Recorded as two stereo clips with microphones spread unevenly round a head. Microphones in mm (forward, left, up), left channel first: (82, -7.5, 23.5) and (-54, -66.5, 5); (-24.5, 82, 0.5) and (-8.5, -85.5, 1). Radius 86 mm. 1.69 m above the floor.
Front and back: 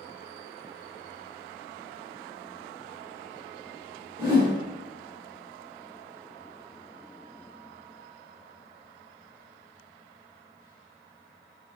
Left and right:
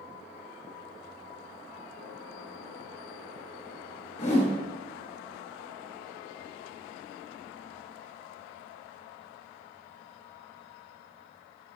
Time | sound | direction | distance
4.2 | a whoosh | 140° left | 4.5 m